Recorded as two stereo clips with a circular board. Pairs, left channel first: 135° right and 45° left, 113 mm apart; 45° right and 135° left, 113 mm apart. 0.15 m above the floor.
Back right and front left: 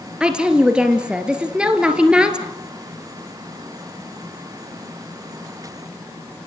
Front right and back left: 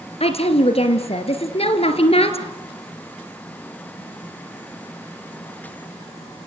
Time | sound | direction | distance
0.2 | a woman speaking | 35° right | 2.5 m